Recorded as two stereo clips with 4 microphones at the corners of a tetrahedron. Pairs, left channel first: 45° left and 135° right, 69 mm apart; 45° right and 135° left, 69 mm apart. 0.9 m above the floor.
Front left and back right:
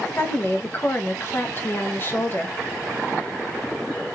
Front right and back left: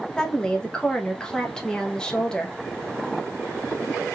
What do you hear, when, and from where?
0.2 s a woman speaking: 25° left, 0.6 m